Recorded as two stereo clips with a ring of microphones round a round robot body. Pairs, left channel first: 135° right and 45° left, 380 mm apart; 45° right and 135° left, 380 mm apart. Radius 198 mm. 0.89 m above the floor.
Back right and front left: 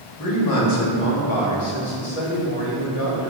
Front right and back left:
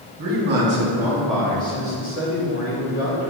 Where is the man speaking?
170° right, 1.8 m; by 3.3 s 95° right, 3 m.